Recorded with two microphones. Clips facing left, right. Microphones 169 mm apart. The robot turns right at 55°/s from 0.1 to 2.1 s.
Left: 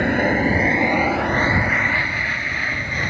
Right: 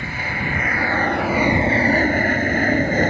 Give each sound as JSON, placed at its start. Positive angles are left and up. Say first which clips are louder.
{"t": 0.0, "sound": "an aircraft", "louder": "left 11 dB", "side_deg": 55}